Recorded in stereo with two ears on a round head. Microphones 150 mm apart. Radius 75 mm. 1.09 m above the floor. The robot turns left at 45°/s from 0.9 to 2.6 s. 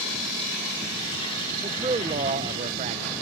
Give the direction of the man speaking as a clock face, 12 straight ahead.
1 o'clock.